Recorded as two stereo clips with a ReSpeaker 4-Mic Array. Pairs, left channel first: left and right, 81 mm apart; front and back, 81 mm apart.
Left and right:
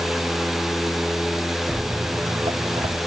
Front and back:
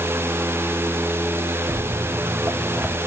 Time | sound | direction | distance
1.7 | footsteps | 165° right | 0.7 m